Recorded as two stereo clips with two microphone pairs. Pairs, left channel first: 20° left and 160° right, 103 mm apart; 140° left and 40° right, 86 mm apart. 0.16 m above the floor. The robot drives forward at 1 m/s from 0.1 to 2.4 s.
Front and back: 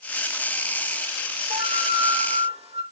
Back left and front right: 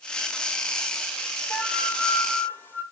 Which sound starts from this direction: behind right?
A flute, at 1.5 s.